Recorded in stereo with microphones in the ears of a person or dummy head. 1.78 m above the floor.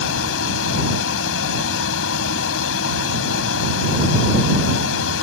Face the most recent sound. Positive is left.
turn(degrees=75)  # may be behind; listen again after turning